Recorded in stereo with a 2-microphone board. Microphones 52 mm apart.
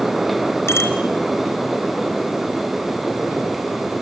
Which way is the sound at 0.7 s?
60° left (ahead or behind).